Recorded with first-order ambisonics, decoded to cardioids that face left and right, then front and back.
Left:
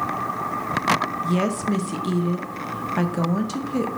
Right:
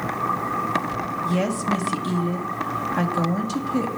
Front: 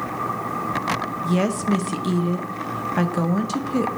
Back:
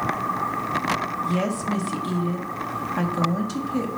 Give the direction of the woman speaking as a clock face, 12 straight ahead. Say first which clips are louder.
Even, front 2 dB; 11 o'clock.